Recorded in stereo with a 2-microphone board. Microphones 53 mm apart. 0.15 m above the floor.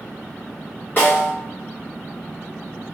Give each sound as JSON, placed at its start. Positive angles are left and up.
{"t": 1.0, "sound": "a snare drum", "side_deg": 40, "distance_m": 1.8}